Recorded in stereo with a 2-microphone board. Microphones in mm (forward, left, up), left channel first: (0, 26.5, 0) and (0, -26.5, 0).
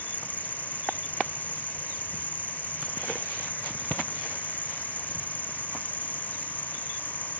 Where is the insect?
30° left (ahead or behind).